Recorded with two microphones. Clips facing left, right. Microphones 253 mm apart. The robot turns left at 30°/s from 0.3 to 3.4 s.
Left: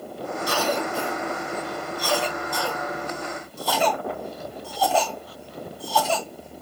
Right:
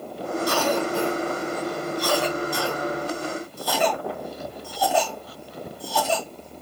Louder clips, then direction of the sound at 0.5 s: Right 2 dB; 60° right (ahead or behind).